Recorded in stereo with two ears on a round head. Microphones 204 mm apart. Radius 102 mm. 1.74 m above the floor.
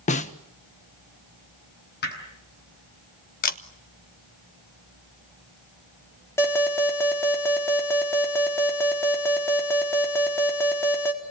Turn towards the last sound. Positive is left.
turn(degrees=10)  # may be behind; listen again after turning